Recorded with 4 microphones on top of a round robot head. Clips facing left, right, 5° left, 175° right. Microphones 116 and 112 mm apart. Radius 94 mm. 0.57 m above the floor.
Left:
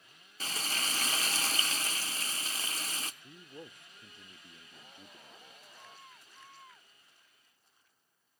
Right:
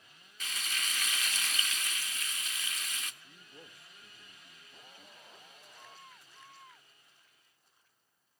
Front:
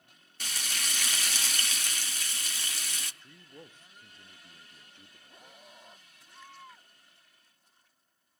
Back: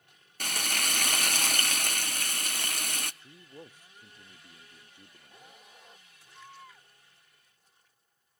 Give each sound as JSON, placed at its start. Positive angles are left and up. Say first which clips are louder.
{"t": 0.4, "sound": "frying", "louder": "left 3 dB, back 6 dB", "azimuth_deg": 150, "distance_m": 0.8}
{"t": 3.2, "sound": "a man speaking", "louder": "left 6 dB, back 2 dB", "azimuth_deg": 120, "distance_m": 0.6}